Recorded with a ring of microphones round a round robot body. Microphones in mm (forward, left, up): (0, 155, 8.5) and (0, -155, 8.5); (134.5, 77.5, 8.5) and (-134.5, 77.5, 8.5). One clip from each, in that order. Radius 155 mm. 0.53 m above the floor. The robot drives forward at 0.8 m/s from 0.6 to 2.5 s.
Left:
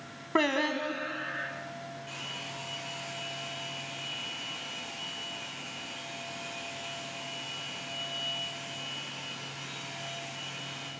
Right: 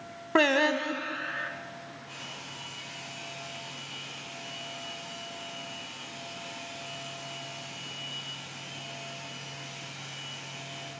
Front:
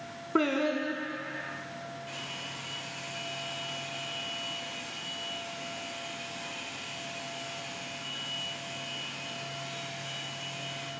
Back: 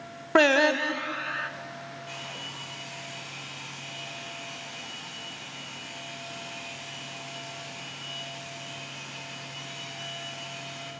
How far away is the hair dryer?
About 7 m.